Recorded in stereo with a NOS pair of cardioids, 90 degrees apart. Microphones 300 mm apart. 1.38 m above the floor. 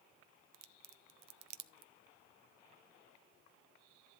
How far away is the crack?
About 0.6 m.